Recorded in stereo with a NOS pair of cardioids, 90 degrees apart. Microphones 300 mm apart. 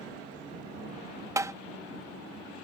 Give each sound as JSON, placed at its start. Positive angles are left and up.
{"t": 1.4, "sound": "tapping", "azimuth_deg": -10}